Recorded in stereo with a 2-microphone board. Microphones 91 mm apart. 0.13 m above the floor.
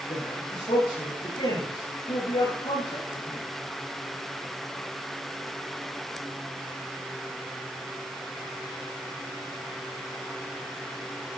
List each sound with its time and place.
0.1 s a man speaking: 75° left (ahead or behind), 9.5 m